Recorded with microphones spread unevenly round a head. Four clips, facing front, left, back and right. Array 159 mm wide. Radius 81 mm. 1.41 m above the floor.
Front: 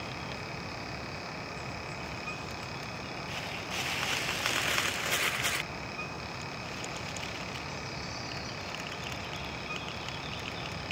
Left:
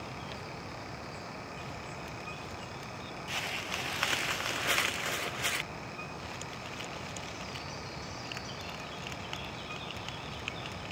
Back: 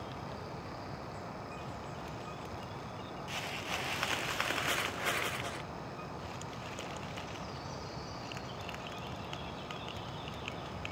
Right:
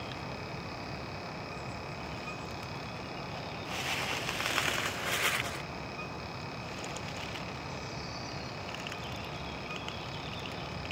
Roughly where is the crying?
I don't hear crying.